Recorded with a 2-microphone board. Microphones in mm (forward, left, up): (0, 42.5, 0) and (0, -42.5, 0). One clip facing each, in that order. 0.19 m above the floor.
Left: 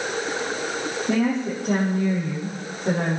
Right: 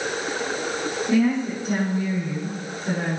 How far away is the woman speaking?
About 6 m.